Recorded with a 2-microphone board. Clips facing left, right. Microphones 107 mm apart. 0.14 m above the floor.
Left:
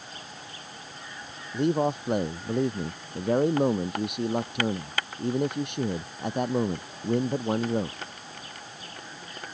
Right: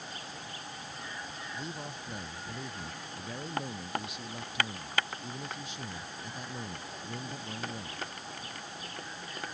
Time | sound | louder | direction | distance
1.5 | a man speaking | left 20 dB | 65° left (ahead or behind) | ?